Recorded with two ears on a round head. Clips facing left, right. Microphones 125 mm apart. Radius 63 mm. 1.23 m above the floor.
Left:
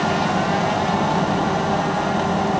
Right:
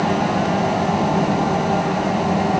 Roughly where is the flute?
I don't hear a flute.